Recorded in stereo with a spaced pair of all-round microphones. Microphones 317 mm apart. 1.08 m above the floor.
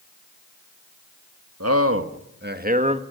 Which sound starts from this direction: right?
A man speaking, at 1.6 s.